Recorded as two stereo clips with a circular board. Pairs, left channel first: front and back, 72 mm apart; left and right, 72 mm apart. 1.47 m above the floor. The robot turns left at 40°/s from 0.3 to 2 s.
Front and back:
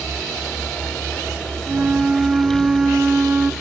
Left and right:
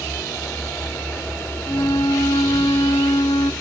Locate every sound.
1.7 s a flute: 120° left, 0.7 m; by 3.5 s 105° left, 0.7 m